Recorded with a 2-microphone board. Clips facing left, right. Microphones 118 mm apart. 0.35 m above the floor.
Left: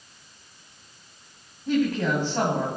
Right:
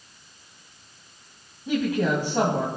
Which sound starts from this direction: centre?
A woman speaking, at 1.7 s.